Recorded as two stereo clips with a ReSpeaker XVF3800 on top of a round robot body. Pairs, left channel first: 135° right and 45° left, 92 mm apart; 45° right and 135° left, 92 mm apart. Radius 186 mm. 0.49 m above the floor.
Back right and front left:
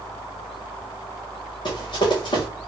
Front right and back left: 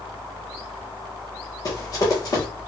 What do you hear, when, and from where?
1.6 s running footsteps: 95° right, 1.7 m